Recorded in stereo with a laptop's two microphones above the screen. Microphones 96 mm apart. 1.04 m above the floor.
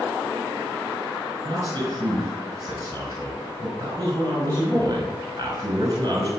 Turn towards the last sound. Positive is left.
turn(degrees=-40)  # may be behind; listen again after turning